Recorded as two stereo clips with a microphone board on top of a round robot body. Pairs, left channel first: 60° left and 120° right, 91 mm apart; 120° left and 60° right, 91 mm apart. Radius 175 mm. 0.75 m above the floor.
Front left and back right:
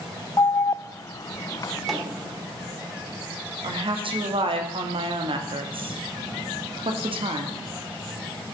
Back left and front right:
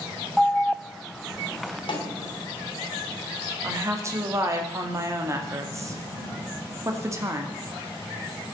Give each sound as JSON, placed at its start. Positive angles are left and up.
{"t": 0.4, "sound": "an alarm", "azimuth_deg": 30, "distance_m": 0.6}
{"t": 1.9, "sound": "a snare drum", "azimuth_deg": 150, "distance_m": 2.5}
{"t": 3.6, "sound": "a woman speaking", "azimuth_deg": -115, "distance_m": 2.5}